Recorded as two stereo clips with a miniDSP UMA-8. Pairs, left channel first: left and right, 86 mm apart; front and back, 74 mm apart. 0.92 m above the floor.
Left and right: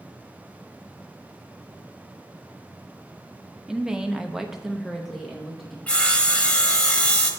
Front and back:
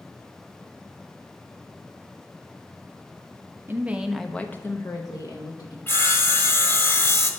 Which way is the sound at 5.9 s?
25° left.